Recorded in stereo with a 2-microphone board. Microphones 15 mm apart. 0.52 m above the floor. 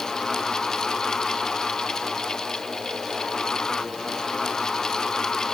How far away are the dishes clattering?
No dishes clattering in this recording.